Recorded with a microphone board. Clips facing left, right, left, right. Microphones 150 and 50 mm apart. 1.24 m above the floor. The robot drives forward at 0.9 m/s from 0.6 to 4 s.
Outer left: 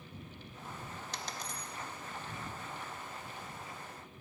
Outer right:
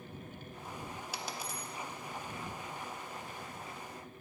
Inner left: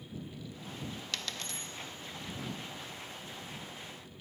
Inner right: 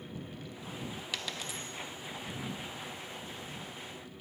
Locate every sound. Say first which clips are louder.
1.1 s a dropped coin: outer right 1 dB, inner right 2 dB; 10° right (ahead or behind), 0.6 m; by 1.7 s 5° right (ahead or behind), 0.6 m